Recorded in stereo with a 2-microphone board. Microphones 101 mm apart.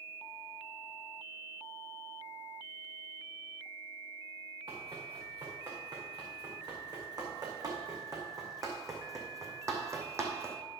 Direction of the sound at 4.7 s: 50° right (ahead or behind).